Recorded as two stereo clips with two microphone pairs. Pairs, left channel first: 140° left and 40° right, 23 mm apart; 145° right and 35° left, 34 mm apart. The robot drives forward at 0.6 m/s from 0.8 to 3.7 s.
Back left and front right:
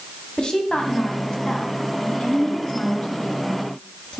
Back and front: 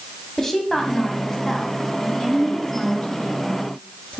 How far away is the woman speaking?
About 1.6 m.